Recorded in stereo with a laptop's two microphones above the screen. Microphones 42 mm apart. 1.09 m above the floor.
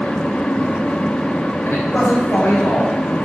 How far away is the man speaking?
About 4 m.